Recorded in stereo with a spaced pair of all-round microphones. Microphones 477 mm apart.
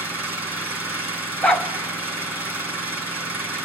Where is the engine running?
5° right (ahead or behind), 4.5 m.